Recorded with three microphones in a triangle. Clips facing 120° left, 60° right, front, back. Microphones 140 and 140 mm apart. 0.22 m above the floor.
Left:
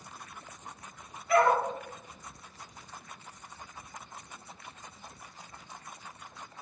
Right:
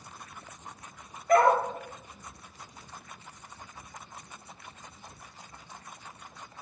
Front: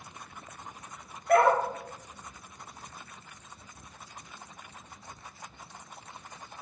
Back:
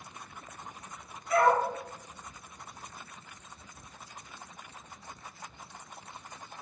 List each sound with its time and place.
1.3 s a dog barking: 20° right, 1.4 m